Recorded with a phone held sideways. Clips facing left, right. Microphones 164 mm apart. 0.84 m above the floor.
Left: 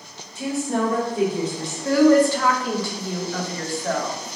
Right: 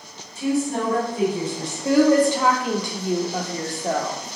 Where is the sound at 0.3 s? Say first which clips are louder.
Right 1 dB; 75° left (ahead or behind), 1.3 m.